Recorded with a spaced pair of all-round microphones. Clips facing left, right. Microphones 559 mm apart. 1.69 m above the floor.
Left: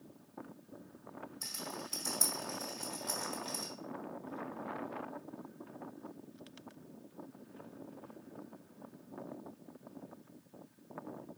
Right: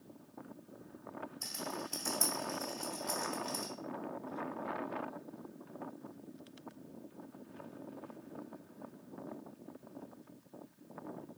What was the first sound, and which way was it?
A rattle, 45° left (ahead or behind).